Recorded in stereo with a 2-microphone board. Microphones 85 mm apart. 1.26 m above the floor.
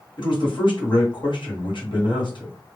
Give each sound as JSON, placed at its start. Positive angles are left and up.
{"t": 0.2, "sound": "a man speaking", "side_deg": 70, "distance_m": 1.2}